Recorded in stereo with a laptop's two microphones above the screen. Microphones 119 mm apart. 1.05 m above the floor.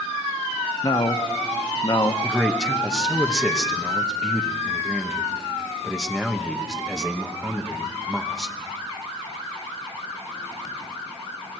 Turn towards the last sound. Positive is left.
turn(degrees=-5)  # may be behind; listen again after turning